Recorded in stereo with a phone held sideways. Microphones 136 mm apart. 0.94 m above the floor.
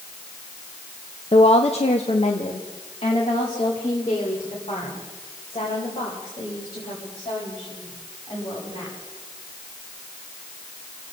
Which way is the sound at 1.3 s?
45° left (ahead or behind).